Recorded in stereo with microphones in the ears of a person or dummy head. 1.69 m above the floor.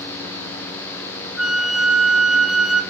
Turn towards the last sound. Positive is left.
turn(degrees=0)  # may be behind; listen again after turning